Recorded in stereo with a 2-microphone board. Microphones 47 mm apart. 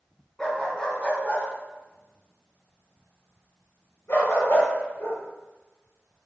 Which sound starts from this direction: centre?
A dog barking, at 0.4 s.